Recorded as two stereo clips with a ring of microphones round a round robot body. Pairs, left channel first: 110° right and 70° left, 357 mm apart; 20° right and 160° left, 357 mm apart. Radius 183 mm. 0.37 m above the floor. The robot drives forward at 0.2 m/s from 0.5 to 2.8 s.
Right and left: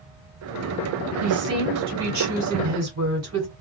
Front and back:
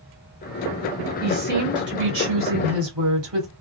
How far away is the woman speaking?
About 1.6 m.